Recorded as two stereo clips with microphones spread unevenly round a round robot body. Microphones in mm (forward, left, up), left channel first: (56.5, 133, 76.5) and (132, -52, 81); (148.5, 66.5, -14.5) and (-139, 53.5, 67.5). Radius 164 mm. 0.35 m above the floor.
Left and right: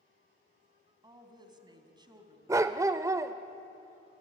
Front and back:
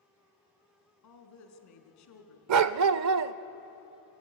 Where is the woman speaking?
Straight ahead, 3 m.